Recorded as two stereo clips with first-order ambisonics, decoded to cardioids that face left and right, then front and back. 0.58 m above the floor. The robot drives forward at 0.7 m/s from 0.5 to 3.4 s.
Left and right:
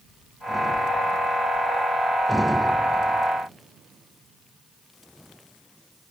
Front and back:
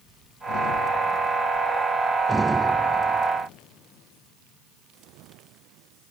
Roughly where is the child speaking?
I don't hear a child speaking.